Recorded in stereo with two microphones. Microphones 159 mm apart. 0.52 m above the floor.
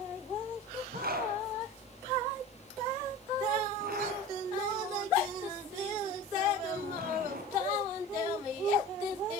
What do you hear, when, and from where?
0.9 s a zipper: 70° right (ahead or behind), 4 m